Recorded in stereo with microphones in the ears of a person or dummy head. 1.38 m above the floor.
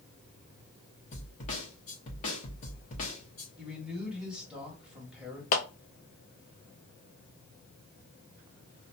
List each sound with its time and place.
1.1 s a snare drum: 35° left (ahead or behind), 0.9 m
3.6 s a man speaking: centre (ahead or behind), 1.4 m
5.5 s a clap: 40° left (ahead or behind), 0.6 m